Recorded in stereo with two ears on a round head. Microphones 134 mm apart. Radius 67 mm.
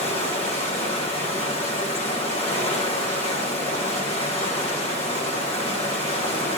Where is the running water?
40° left (ahead or behind), 1.1 m.